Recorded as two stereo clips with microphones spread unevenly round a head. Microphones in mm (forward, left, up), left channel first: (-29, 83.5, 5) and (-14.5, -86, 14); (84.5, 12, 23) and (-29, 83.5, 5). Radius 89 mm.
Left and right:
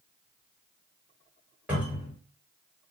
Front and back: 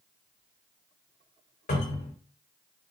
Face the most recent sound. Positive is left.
turn(degrees=-5)